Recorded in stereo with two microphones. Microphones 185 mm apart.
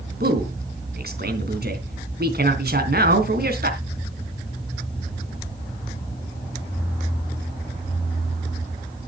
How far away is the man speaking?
About 3.5 m.